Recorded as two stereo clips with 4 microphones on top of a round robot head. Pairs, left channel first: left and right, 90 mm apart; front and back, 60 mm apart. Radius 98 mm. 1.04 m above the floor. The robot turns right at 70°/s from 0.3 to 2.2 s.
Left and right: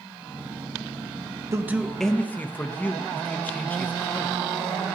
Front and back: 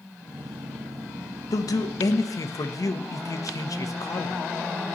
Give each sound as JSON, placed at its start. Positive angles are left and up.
{"t": 1.5, "sound": "a man speaking", "azimuth_deg": -30, "distance_m": 1.0}